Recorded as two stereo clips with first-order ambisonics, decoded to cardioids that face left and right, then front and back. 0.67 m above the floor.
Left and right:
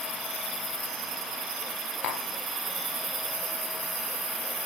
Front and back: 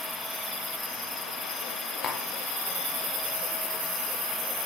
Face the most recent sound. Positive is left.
turn(degrees=65)